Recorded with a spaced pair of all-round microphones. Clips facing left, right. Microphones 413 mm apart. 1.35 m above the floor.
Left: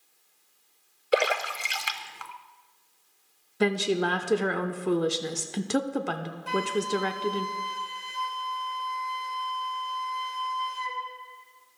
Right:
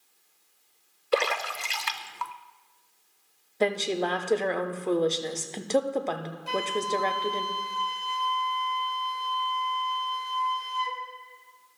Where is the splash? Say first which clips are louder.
Left 2 dB; 5° right (ahead or behind), 0.5 m.